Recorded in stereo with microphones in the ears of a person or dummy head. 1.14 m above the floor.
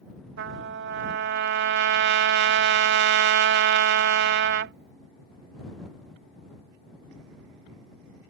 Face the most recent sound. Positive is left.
turn(degrees=-55)  # may be behind; listen again after turning